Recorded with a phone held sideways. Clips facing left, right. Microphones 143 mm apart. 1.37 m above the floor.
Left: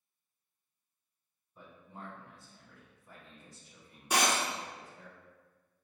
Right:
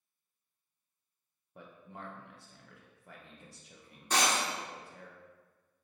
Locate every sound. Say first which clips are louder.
1.6 s a man speaking: right 1 dB; 70° right (ahead or behind), 0.7 m
4.1 s breaking glass: left 1 dB; 10° left (ahead or behind), 0.8 m